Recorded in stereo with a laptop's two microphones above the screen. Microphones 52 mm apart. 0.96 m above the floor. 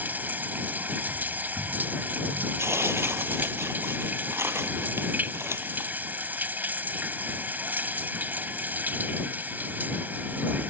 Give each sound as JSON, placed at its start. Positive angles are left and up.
{"t": 0.0, "sound": "running water", "side_deg": -35}
{"t": 2.6, "sound": "tearing paper", "side_deg": -55}